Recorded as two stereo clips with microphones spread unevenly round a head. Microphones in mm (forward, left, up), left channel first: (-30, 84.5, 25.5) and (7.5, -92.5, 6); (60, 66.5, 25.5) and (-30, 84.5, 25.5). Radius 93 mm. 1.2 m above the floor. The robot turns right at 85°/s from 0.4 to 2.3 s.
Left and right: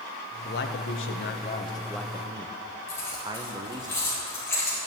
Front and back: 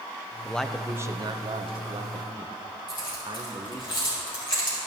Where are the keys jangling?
25° left, 4 m.